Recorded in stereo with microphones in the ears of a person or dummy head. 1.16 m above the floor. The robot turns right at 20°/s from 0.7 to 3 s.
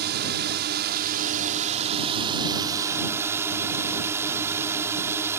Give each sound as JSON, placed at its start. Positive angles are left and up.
{"t": 0.0, "sound": "a drone", "azimuth_deg": -65}